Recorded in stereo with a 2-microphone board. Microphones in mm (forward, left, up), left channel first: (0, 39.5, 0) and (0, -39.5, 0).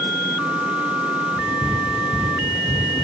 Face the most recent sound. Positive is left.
turn(degrees=-40)  # may be behind; listen again after turning